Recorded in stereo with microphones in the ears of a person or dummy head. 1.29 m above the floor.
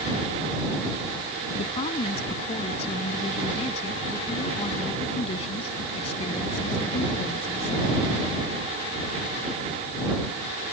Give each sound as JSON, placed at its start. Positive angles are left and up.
{"t": 1.5, "sound": "a woman speaking", "side_deg": 35}